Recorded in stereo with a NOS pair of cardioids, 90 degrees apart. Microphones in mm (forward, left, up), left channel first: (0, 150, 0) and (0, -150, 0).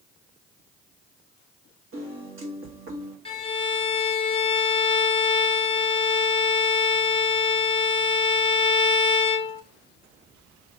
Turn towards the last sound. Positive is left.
turn(degrees=20)